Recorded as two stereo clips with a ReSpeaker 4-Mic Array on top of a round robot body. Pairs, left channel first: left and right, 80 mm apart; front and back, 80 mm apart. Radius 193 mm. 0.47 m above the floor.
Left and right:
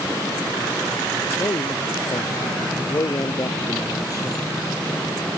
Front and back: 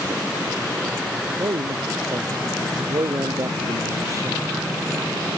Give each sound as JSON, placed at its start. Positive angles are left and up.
{"t": 1.4, "sound": "a man speaking", "azimuth_deg": 135}